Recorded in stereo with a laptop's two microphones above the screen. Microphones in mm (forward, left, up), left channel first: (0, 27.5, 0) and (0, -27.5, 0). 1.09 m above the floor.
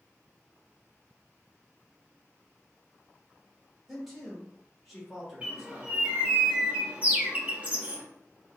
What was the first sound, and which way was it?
A man speaking, centre (ahead or behind).